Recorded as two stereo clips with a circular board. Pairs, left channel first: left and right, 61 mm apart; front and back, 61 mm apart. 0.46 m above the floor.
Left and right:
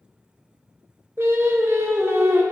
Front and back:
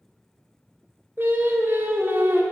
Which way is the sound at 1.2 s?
130° right.